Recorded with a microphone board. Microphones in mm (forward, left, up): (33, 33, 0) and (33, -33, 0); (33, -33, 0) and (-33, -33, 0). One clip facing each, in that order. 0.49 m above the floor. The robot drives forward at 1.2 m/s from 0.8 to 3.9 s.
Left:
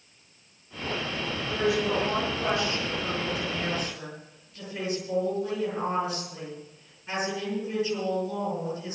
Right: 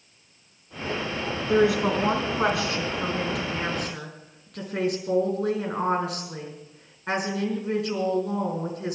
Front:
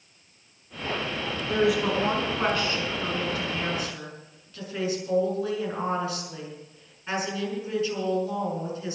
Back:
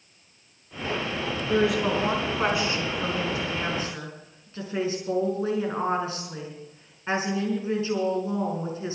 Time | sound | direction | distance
1.5 | a woman speaking | 90° right | 5 m